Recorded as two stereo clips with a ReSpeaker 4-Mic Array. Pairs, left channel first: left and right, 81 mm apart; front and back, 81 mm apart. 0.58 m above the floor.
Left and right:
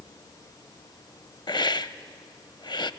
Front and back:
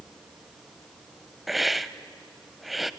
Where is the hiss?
90° left, 0.5 m.